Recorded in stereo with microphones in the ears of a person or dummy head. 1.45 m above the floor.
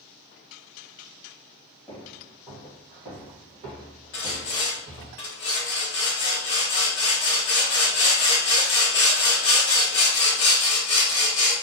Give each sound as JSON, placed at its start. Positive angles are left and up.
{"t": 1.9, "sound": "footsteps", "side_deg": 5, "distance_m": 1.8}
{"t": 4.1, "sound": "sawing", "side_deg": 20, "distance_m": 0.9}